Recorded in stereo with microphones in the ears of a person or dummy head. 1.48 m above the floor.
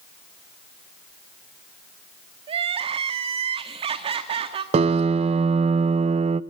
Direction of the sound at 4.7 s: 35° right (ahead or behind).